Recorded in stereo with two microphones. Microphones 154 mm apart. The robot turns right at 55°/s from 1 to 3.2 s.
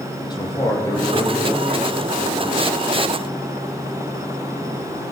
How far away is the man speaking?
About 4 m.